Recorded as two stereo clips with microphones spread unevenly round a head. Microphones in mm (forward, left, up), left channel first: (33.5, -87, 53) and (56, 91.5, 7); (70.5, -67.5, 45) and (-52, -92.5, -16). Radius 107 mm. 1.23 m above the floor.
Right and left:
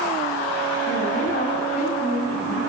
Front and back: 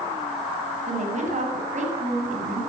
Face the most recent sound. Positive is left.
turn(degrees=-155)